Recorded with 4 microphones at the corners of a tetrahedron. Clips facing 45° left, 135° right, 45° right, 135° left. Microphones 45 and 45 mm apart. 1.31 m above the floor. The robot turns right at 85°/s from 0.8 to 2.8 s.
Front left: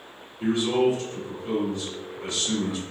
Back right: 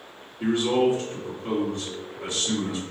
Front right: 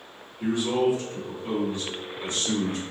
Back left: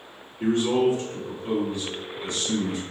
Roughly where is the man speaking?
Behind.